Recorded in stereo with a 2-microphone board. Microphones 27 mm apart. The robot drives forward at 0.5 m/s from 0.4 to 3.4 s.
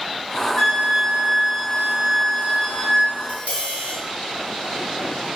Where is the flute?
5° right (ahead or behind), 2.0 m; by 3.1 s centre (ahead or behind), 3 m.